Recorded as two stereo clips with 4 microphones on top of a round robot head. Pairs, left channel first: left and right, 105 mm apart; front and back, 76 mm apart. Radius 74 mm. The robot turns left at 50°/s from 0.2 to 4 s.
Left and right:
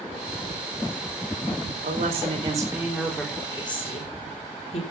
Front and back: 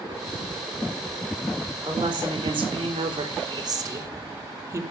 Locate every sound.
1.8 s a woman speaking: 120° right, 4 m; by 4.8 s 130° left, 4 m